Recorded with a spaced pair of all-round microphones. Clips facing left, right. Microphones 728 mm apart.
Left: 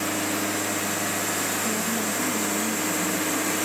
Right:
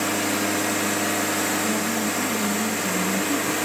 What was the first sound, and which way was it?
A woman speaking, 70° right (ahead or behind).